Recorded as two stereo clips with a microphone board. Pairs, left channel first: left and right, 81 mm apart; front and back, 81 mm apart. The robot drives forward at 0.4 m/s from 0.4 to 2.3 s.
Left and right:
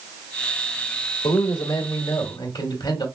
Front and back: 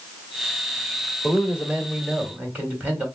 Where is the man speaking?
100° left, 1.9 m; by 3.0 s 110° left, 2 m.